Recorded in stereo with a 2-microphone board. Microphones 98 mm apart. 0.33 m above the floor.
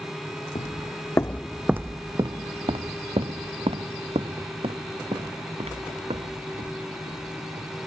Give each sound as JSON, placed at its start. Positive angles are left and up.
{"t": 0.6, "sound": "footsteps", "side_deg": 55}